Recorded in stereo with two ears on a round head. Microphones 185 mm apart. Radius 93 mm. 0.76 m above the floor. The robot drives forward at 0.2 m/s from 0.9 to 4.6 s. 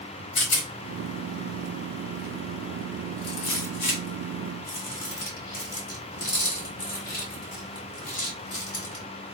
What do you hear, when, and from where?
0.3 s a rattle: 60° left (ahead or behind), 1.4 m; by 9.1 s 45° left (ahead or behind), 1.8 m